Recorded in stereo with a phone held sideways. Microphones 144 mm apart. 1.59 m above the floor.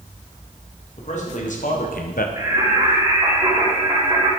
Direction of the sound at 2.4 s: 20° right (ahead or behind).